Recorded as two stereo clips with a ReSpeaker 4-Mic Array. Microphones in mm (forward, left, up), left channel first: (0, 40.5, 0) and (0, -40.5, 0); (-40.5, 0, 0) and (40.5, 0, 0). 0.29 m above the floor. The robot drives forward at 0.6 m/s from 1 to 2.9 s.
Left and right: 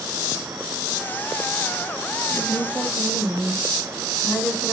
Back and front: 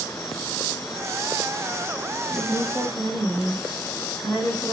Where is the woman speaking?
160° left, 2.5 m.